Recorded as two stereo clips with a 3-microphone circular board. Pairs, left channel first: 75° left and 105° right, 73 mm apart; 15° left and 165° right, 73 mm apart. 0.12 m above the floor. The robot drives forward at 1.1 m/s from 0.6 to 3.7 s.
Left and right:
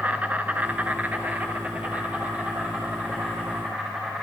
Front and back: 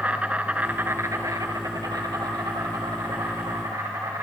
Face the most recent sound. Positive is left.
turn(degrees=-175)